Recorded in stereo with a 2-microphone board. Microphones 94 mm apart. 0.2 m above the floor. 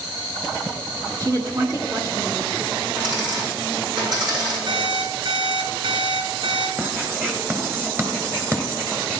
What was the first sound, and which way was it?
A woman speaking, 35° right (ahead or behind).